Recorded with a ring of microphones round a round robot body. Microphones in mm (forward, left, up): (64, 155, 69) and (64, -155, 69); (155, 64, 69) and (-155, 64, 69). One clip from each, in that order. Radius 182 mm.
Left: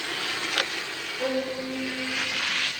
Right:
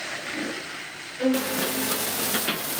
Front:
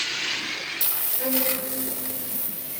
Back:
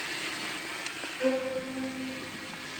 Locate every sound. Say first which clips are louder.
1.2 s a violin: right 3 dB, front 1 dB; 80° right, 8 m